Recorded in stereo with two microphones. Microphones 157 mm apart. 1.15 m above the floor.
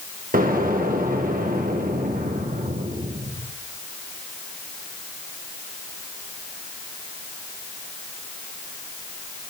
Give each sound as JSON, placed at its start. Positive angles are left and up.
{"t": 0.3, "sound": "an explosion", "side_deg": -65, "distance_m": 1.0}